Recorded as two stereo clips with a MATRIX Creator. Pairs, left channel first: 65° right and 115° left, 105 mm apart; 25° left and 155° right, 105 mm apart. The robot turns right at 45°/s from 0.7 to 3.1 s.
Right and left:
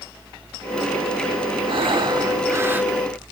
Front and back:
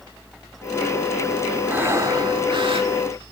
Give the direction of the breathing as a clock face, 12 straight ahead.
8 o'clock.